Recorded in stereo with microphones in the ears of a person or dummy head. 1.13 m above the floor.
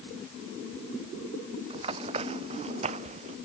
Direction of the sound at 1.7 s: 25° right (ahead or behind).